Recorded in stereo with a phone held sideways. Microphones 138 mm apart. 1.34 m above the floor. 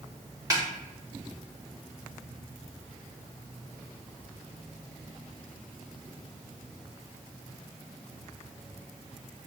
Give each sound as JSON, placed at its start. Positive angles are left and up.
{"t": 0.5, "sound": "a snare drum", "side_deg": -25, "distance_m": 0.9}